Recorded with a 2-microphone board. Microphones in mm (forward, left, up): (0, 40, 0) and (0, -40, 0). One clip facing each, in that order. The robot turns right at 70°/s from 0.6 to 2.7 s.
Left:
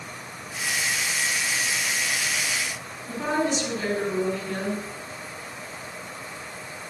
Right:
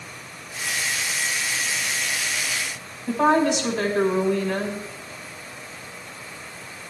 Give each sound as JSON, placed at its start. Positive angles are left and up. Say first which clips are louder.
{"t": 3.1, "sound": "a woman speaking", "louder": "right 7 dB", "side_deg": -80, "distance_m": 5.0}